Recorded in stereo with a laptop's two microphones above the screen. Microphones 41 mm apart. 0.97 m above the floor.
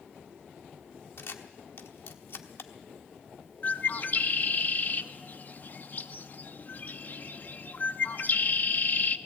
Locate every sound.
1.2 s a camera shutter: 70° left (ahead or behind), 1.1 m
3.6 s a bird: 45° left (ahead or behind), 0.8 m